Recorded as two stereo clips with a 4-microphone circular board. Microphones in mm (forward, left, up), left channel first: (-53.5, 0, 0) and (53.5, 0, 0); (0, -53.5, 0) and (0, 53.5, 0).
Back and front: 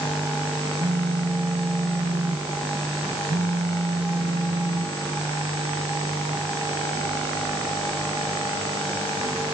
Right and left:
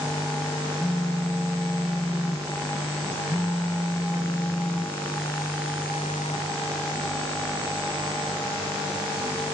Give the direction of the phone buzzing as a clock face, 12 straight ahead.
1 o'clock.